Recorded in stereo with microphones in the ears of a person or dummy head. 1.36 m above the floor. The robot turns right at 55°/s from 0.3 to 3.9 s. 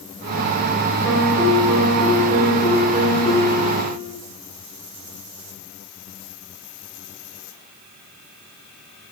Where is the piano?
110° right, 4.5 m; by 4.1 s 50° left, 4.5 m.